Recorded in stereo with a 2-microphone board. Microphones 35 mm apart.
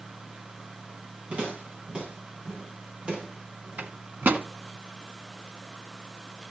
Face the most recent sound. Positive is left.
turn(degrees=-55)  # may be behind; listen again after turning